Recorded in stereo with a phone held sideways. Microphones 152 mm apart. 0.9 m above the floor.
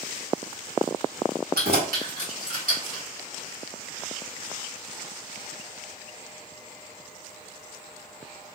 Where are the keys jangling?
80° right, 1.4 m; by 3.0 s 65° right (ahead or behind), 2.5 m.